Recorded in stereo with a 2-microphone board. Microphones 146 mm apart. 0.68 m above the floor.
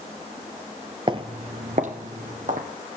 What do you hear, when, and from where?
1.1 s footsteps: 35° right (ahead or behind), 0.7 m; by 2.7 s 70° right (ahead or behind), 1.7 m